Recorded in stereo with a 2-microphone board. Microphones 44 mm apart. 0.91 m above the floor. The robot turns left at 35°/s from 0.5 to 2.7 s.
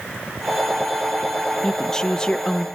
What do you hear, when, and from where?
1.6 s a woman speaking: 10° left (ahead or behind), 0.5 m; by 2.7 s 20° left (ahead or behind), 0.5 m